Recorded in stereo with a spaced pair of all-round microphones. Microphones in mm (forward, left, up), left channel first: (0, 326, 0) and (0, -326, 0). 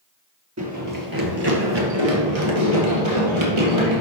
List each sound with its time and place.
0.6 s running footsteps: 25° right (ahead or behind), 1.8 m; by 4.0 s 45° right (ahead or behind), 3 m